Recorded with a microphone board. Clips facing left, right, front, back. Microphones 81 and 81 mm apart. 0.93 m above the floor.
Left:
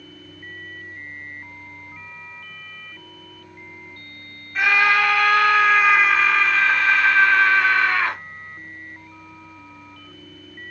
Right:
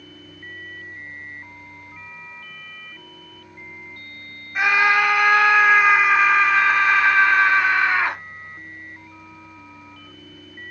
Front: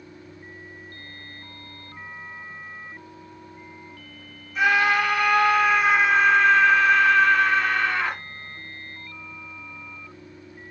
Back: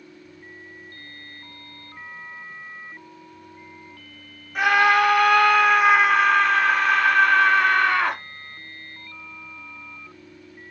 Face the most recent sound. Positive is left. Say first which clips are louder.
# even, back 3 dB
turn(degrees=-160)